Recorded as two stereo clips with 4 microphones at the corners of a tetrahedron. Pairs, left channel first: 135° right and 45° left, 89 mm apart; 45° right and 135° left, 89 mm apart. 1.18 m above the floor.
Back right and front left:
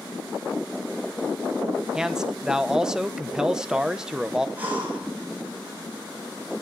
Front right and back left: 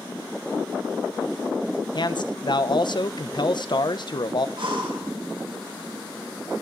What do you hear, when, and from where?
1.9 s a man speaking: 35° right, 0.8 m
4.6 s breathing: 115° left, 5 m